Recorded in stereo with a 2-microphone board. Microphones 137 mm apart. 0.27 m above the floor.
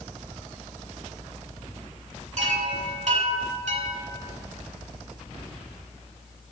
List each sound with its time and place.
2.4 s a chime: 60° right (ahead or behind), 0.8 m